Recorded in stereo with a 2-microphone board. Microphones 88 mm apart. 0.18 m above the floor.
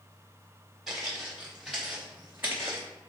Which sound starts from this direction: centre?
Footsteps, at 0.9 s.